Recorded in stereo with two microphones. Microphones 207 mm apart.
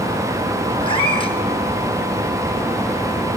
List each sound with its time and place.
0.8 s a cat meowing: 25° left (ahead or behind), 1.8 m